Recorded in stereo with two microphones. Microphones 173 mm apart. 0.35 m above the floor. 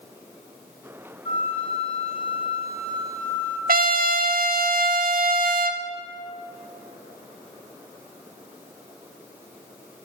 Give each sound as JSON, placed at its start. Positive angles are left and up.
{"t": 1.2, "sound": "a flute", "side_deg": 35, "distance_m": 1.2}
{"t": 3.7, "sound": "a trumpet", "side_deg": -60, "distance_m": 0.5}